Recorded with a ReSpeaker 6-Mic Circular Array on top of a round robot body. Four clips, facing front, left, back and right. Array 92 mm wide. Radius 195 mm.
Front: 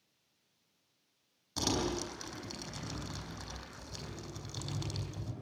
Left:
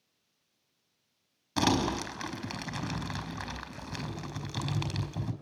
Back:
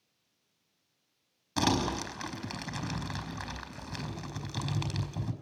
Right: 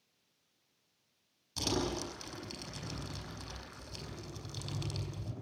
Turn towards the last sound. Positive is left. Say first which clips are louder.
# left 8 dB, back 5 dB
turn(degrees=120)